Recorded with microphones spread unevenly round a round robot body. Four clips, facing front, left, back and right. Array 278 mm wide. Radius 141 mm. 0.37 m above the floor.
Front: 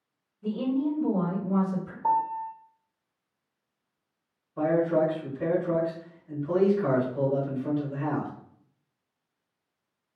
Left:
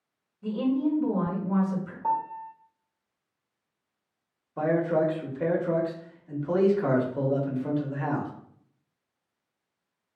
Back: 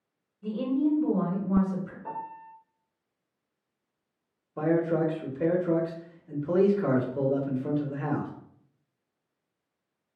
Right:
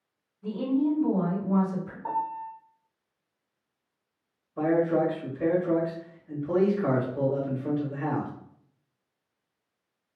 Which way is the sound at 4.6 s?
170° left.